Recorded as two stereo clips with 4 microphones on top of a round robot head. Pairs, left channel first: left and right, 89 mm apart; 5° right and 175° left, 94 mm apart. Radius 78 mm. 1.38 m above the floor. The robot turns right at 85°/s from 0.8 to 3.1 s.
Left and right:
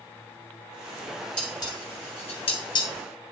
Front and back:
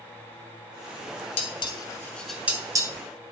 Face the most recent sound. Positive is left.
turn(degrees=155)